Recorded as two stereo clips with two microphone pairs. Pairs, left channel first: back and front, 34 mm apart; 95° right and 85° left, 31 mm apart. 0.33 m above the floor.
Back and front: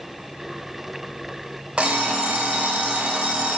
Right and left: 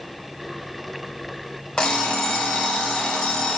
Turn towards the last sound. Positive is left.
turn(degrees=-40)